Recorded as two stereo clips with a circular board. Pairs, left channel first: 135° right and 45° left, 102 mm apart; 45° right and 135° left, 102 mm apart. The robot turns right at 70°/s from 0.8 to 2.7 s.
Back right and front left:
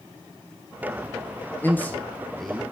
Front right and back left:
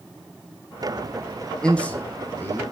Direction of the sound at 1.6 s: 110° right.